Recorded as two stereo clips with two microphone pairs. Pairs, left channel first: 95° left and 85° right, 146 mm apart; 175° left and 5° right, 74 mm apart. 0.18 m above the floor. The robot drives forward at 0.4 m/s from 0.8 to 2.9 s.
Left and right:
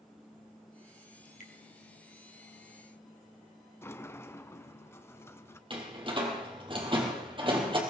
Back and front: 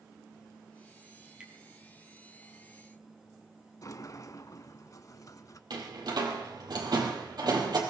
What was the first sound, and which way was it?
Dripping, 70° left.